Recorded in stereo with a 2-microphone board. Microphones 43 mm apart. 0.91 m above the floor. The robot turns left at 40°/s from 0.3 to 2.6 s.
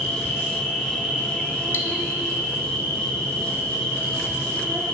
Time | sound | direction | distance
0.0 | an insect | straight ahead | 1.0 m
1.7 | cutlery clinking | 55° left (ahead or behind) | 0.7 m